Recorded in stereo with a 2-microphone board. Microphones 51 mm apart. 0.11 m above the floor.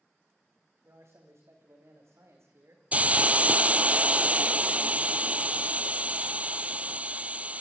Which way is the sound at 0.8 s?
70° right (ahead or behind).